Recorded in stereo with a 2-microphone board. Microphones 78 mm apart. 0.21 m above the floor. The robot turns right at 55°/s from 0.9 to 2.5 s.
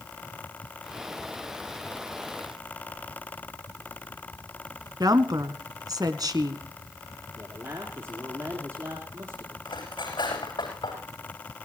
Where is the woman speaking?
55° right (ahead or behind), 1.7 m.